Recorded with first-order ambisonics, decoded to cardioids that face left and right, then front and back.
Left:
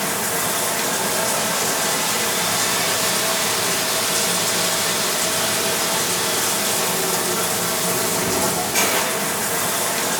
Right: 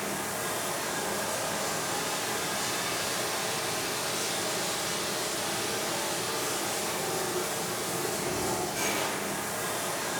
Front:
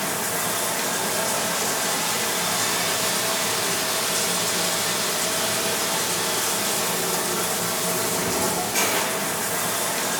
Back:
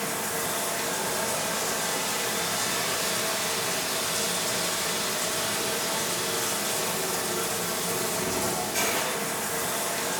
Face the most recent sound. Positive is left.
turn(degrees=70)